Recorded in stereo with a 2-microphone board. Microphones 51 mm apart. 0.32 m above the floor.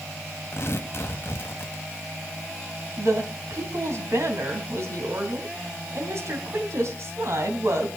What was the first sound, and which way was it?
Tearing paper, 50° left (ahead or behind).